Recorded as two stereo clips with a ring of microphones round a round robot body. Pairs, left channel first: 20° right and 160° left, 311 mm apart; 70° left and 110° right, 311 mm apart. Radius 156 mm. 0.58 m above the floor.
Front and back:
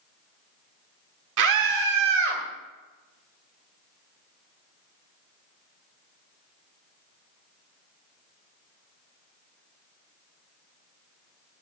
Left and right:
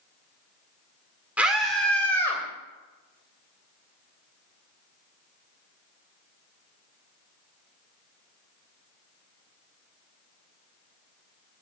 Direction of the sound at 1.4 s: 165° left.